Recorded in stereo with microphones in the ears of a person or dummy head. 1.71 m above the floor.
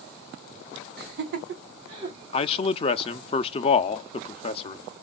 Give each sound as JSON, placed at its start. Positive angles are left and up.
{"t": 1.0, "sound": "laughter", "side_deg": -55, "distance_m": 1.2}
{"t": 2.3, "sound": "a man speaking", "side_deg": 35, "distance_m": 0.5}